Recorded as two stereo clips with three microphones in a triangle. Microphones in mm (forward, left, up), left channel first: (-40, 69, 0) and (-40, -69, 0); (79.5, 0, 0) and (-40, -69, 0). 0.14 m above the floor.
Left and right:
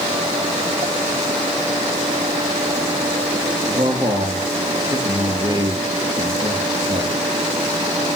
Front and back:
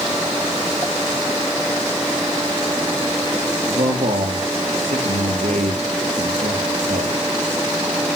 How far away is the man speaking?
About 2.5 m.